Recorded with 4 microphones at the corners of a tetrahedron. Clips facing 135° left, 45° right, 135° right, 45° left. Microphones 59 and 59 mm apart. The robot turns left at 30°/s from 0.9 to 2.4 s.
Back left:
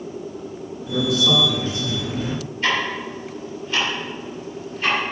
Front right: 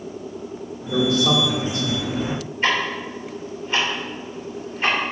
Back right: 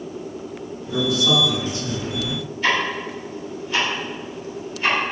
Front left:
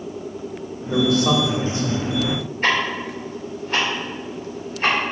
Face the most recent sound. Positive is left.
turn(degrees=10)